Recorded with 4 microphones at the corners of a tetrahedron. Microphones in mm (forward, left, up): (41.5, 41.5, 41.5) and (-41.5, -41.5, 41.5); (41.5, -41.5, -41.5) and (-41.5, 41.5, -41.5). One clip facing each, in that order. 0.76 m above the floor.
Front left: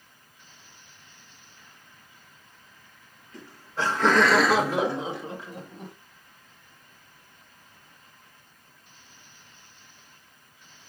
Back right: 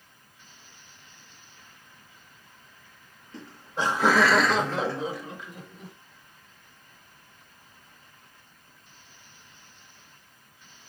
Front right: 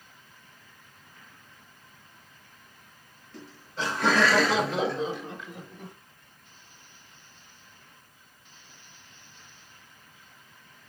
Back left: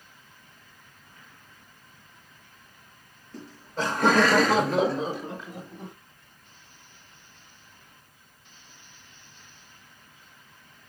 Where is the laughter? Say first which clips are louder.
Even, back left 4 dB; 170° left, 1.6 m; by 5.9 s 80° left, 1.7 m.